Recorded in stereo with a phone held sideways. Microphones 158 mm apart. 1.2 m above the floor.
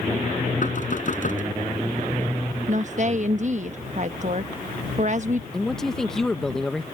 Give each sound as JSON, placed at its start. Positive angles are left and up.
{"t": 0.6, "sound": "knocking", "side_deg": 55}
{"t": 2.7, "sound": "a woman speaking", "side_deg": -50}
{"t": 5.5, "sound": "a man speaking", "side_deg": 5}